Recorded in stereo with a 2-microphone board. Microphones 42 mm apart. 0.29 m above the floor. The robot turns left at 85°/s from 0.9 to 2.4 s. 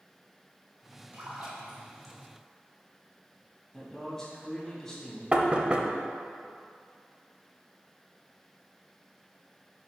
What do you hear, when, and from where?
1.1 s a splash: 55° right (ahead or behind), 2 m; by 2.1 s 10° left (ahead or behind), 2 m
3.7 s a man speaking: 10° left (ahead or behind), 2.5 m
5.3 s knocking: 25° right (ahead or behind), 0.7 m